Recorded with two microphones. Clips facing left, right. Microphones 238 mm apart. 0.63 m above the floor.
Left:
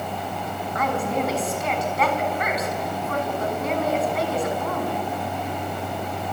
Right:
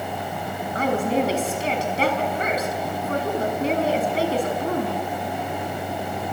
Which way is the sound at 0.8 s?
30° right (ahead or behind).